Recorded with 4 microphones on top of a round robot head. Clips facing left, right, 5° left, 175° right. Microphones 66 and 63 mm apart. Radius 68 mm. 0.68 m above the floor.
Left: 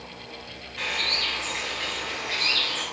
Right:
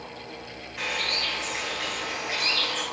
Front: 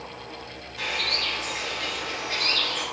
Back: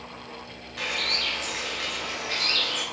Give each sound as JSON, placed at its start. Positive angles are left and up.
{"t": 0.8, "sound": "a bird", "azimuth_deg": -170, "distance_m": 3.5}